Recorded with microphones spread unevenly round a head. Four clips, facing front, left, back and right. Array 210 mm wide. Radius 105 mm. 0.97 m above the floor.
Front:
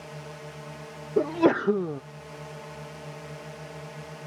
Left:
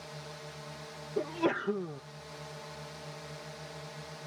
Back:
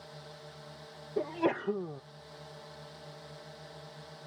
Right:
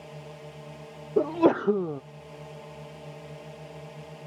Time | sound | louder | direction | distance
0.0 | a drone | right 3 dB, front 8 dB | 25° right | ?
1.2 | a sneeze | right 9 dB, front 9 dB | 40° right | ?